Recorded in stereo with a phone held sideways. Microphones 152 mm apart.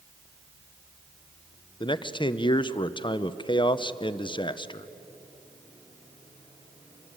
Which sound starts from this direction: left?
A man speaking, at 1.8 s.